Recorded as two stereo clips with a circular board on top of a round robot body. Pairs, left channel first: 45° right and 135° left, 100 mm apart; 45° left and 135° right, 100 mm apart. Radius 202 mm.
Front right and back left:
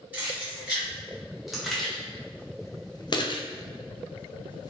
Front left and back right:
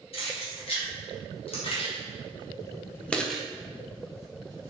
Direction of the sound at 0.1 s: 60° left.